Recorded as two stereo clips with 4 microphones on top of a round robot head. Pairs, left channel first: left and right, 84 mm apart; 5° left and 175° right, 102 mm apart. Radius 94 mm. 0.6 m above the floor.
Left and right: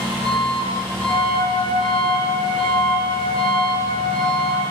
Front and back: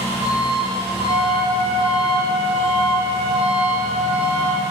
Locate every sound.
0.0 s an engine running: 160° left, 2 m
1.1 s a flute: 155° right, 1.6 m